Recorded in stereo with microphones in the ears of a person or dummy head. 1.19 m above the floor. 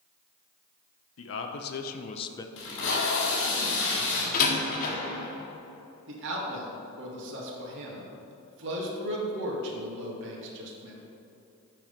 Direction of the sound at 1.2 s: 70° left (ahead or behind).